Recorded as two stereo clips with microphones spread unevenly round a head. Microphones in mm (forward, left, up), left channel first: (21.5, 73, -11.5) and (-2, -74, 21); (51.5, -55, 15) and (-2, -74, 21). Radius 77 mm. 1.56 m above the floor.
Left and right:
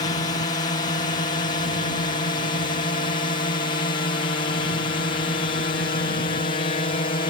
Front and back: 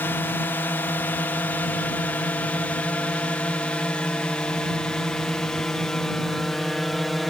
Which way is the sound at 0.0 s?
55° left.